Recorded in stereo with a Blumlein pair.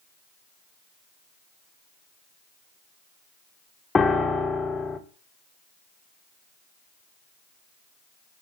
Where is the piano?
10° left, 0.7 m.